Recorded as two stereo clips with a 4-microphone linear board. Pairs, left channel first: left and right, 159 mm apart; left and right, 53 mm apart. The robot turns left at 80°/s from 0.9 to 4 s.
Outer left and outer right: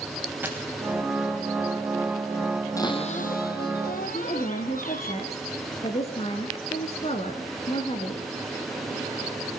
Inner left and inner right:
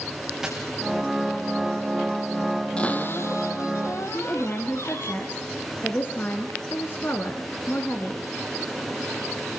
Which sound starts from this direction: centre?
A dropped coin, at 0.4 s.